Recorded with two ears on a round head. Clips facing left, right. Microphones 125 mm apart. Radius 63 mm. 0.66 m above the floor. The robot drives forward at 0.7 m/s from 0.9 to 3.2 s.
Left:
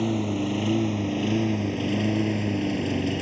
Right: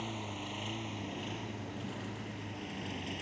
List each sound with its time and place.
0.0 s a lawn mower: 65° left (ahead or behind); by 3.2 s 70° left (ahead or behind)